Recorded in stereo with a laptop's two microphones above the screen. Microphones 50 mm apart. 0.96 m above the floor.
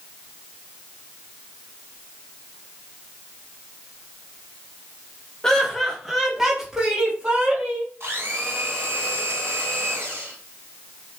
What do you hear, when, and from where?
5.4 s laughter: 10° left (ahead or behind), 1.4 m; by 7.9 s 25° right (ahead or behind), 2 m
8.0 s a blender: 70° right (ahead or behind), 3 m